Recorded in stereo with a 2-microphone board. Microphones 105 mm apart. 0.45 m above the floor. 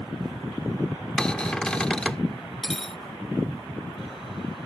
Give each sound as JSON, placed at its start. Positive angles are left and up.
{"t": 1.2, "sound": "a cupboard door", "side_deg": 10}
{"t": 2.6, "sound": "cutlery clinking", "side_deg": 0}